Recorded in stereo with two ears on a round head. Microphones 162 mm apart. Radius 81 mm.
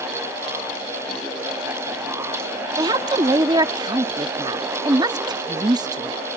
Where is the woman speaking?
25° right (ahead or behind).